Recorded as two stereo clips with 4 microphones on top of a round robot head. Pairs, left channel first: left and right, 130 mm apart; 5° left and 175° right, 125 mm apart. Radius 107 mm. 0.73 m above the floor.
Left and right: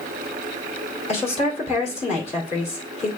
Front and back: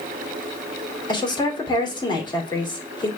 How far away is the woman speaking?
About 2.5 m.